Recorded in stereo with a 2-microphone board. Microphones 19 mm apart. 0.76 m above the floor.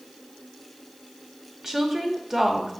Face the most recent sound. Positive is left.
turn(degrees=-25)  # may be behind; listen again after turning